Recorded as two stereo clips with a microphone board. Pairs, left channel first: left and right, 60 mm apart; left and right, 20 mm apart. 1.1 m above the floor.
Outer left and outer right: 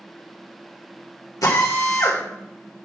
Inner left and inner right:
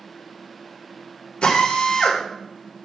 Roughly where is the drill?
Left.